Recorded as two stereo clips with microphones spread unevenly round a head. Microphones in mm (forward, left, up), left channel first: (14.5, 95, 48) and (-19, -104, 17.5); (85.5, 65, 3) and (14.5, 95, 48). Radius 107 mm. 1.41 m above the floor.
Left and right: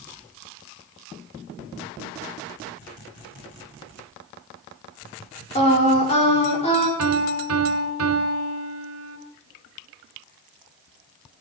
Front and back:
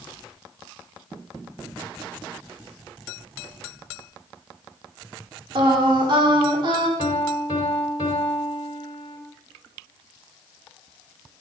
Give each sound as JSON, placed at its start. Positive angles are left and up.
{"t": 5.5, "sound": "singing", "azimuth_deg": 140, "distance_m": 4.5}
{"t": 7.0, "sound": "a piano", "azimuth_deg": -85, "distance_m": 4.0}